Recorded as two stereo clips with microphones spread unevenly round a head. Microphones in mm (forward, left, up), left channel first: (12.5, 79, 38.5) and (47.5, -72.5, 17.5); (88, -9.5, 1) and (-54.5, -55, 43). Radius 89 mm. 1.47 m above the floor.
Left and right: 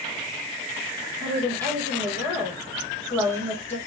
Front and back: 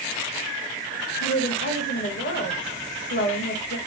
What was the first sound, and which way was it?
A woman speaking, 25° left.